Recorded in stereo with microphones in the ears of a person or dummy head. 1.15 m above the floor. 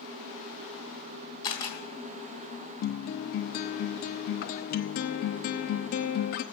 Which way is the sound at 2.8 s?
50° left (ahead or behind).